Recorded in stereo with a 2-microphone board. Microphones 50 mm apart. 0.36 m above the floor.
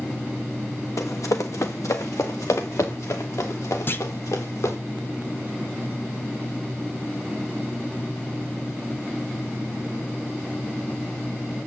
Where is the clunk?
50° left (ahead or behind), 1.3 m.